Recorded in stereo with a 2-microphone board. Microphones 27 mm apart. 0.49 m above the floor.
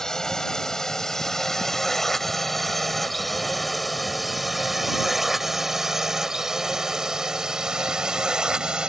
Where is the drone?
20° left (ahead or behind); by 8.9 s 35° right (ahead or behind).